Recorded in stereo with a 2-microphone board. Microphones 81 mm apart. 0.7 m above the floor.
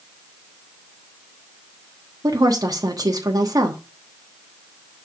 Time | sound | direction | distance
2.2 | a woman speaking | 50° right (ahead or behind) | 1.2 m